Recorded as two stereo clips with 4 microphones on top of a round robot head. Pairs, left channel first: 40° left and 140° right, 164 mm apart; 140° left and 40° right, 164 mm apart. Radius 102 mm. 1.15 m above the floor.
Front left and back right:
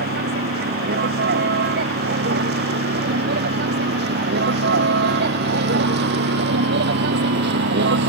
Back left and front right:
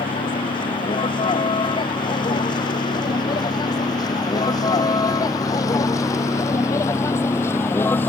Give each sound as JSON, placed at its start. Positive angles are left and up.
{"t": 0.0, "sound": "a vehicle", "azimuth_deg": -160}